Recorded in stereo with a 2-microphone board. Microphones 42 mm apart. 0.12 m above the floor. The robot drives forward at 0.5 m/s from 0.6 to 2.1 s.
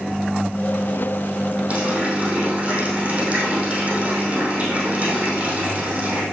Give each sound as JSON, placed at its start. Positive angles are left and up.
{"t": 1.7, "sound": "a running tap", "side_deg": -35, "distance_m": 3.5}